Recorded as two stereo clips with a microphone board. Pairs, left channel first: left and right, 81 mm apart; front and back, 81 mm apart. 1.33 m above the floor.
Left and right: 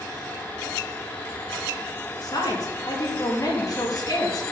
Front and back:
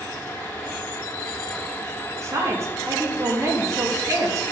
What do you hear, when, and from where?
2.2 s a woman speaking: 130° left, 2.5 m